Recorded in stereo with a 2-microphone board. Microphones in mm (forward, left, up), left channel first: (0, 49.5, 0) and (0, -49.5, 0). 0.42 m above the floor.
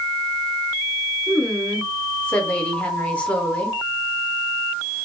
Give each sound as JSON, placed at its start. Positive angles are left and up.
{"t": 1.3, "sound": "a woman speaking", "side_deg": 15, "distance_m": 1.0}